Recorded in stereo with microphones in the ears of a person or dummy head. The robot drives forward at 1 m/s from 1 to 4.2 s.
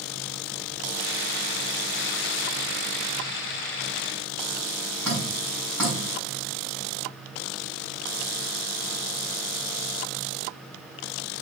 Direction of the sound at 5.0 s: 15° left (ahead or behind).